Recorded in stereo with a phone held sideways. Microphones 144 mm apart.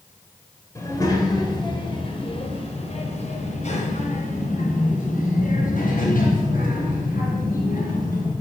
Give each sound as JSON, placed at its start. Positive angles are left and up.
{"t": 0.8, "sound": "a child speaking", "side_deg": 20, "distance_m": 3.5}